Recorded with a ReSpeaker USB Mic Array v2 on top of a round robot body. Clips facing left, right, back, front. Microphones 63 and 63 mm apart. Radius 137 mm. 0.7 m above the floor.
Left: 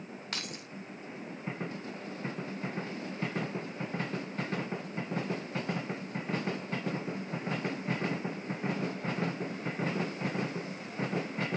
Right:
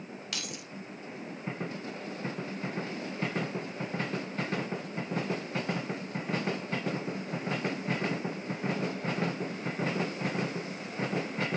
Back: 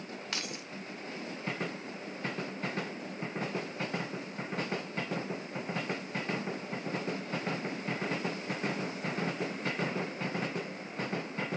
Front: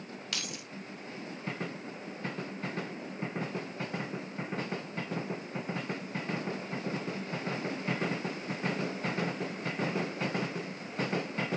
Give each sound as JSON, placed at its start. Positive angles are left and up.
{"t": 0.3, "sound": "keys jangling", "azimuth_deg": 130, "distance_m": 0.9}